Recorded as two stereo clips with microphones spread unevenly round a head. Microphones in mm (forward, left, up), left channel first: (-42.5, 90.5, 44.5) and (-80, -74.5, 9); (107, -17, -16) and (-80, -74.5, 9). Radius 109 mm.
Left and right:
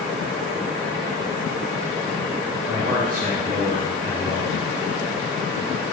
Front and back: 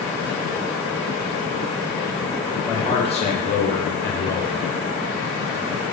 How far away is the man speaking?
About 0.9 m.